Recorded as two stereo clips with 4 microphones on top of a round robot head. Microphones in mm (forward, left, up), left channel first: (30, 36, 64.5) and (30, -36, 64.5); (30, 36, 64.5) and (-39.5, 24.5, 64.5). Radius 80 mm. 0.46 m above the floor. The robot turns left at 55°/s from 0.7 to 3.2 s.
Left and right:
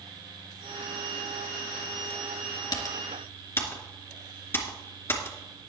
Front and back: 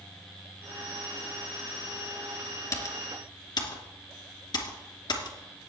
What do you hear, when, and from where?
2.7 s typing on a keyboard: 60° left, 2.5 m; by 5.4 s 30° left, 2.5 m